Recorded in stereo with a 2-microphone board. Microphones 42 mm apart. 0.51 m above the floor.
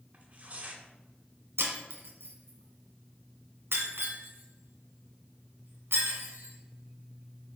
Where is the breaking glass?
80° right, 1.6 m.